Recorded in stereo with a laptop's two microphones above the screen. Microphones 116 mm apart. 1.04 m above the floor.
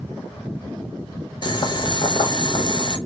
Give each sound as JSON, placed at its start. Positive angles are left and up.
{"t": 1.4, "sound": "boiling", "side_deg": 45, "distance_m": 0.6}